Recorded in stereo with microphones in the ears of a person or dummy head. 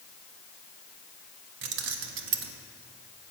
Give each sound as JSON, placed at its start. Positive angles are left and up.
{"t": 1.6, "sound": "keys jangling", "side_deg": -60, "distance_m": 0.6}